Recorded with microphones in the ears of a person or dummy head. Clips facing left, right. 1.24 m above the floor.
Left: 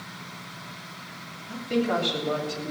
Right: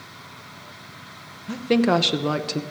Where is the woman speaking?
60° right (ahead or behind), 1.1 m; by 2.6 s 65° right (ahead or behind), 1.2 m.